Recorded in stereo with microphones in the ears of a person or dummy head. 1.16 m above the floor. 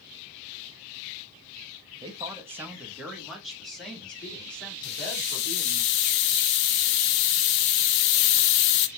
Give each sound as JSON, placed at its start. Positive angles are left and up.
{"t": 2.0, "sound": "a woman speaking", "side_deg": -25, "distance_m": 1.0}
{"t": 4.8, "sound": "a hiss", "side_deg": 55, "distance_m": 0.6}